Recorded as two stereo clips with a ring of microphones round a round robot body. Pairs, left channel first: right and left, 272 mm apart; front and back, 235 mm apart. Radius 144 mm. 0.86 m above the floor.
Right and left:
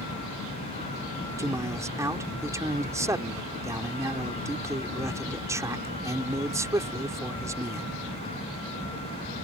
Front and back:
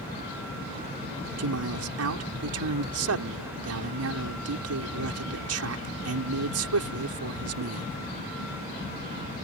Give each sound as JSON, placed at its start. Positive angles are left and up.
{"t": 1.4, "sound": "a man speaking", "azimuth_deg": 170}